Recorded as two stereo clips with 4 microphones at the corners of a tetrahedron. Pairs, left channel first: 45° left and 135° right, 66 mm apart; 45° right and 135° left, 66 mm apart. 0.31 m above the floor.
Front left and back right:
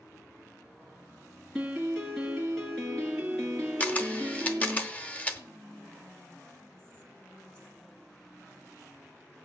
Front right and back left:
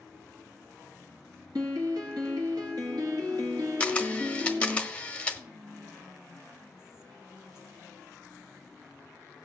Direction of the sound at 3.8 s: 5° left.